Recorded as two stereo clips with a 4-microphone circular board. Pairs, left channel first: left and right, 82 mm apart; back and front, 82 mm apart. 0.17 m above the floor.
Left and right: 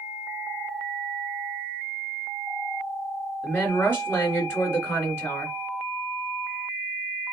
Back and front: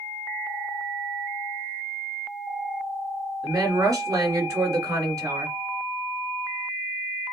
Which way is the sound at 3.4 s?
35° left.